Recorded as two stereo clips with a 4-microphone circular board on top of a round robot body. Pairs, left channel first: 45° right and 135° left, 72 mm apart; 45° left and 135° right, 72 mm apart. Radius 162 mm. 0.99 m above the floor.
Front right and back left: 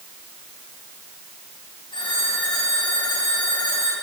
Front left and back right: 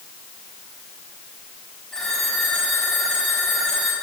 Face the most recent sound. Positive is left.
turn(degrees=-40)